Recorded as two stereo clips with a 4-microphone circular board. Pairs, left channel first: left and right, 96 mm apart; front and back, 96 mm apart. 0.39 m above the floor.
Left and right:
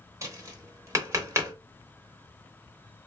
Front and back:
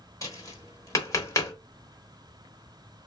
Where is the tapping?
40° right, 1.0 m.